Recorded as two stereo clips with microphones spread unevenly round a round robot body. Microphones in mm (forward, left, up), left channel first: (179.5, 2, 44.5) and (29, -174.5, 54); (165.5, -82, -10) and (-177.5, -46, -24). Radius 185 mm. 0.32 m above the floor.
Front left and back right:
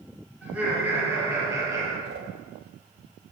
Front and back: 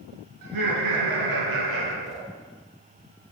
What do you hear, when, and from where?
0.4 s laughter: 135° left, 4 m; by 1.9 s 150° left, 4.5 m
2.0 s a whoosh: 120° right, 3 m